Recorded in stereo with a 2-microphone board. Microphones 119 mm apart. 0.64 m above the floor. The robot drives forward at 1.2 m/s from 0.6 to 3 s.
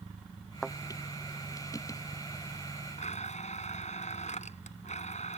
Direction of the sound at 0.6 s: Centre (ahead or behind).